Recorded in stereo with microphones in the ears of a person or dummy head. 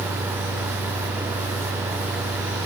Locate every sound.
Only background noise.